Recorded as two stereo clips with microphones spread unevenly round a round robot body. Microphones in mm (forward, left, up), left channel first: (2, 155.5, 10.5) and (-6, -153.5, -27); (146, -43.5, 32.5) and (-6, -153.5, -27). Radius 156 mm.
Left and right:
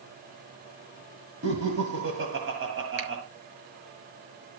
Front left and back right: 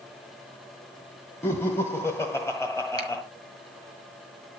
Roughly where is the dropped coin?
I don't hear a dropped coin.